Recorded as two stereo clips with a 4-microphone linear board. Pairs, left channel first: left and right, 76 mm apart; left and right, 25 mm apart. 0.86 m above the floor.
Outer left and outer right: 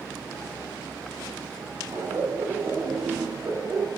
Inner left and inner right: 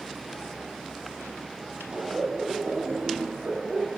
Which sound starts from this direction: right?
Laughter, at 1.9 s.